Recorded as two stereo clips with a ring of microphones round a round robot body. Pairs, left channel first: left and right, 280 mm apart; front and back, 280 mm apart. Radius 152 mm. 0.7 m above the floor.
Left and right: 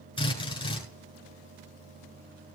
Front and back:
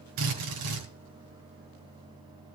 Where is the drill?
160° left, 8 m.